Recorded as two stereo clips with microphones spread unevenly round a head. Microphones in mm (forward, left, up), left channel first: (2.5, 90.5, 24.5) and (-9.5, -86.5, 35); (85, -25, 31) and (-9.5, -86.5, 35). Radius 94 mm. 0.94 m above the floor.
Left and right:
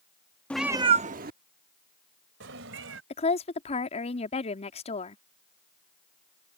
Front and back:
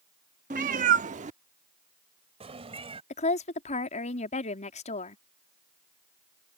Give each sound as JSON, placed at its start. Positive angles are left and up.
{"t": 0.5, "sound": "a cat meowing", "azimuth_deg": 170}
{"t": 3.1, "sound": "a woman speaking", "azimuth_deg": 30}